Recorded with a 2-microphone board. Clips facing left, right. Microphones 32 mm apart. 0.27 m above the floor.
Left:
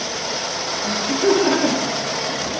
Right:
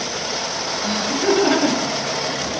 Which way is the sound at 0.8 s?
45° right (ahead or behind).